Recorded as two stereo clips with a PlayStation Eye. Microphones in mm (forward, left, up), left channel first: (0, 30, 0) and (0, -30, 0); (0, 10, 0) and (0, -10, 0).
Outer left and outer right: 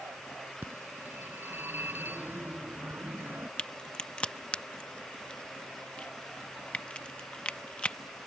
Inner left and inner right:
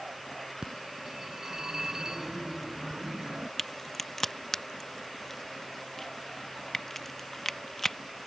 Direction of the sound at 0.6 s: 35° right (ahead or behind).